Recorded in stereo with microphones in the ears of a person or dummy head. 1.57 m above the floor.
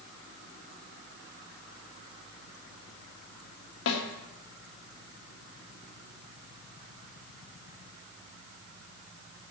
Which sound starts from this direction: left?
A snare drum, at 3.9 s.